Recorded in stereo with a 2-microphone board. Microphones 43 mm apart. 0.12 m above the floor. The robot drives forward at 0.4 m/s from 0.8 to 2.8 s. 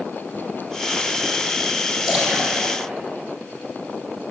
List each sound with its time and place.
2.1 s a splash: 15° right (ahead or behind), 3.5 m